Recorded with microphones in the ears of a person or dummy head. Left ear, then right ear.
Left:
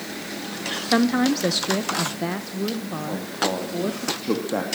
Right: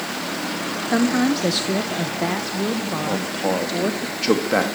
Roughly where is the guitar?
No guitar in this recording.